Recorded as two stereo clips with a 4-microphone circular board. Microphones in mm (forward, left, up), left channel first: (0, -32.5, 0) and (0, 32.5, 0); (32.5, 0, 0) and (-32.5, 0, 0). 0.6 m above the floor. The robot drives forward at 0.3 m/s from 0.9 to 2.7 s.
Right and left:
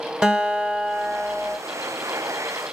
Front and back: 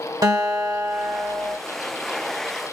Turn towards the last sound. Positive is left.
turn(degrees=170)